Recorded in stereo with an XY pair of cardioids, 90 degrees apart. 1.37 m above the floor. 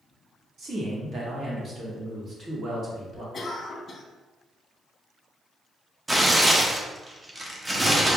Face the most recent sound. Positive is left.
turn(degrees=-15)